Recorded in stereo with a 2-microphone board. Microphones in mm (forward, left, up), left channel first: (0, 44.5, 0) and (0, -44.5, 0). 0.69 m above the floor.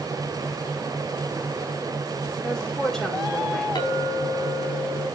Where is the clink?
55° left (ahead or behind), 4 m.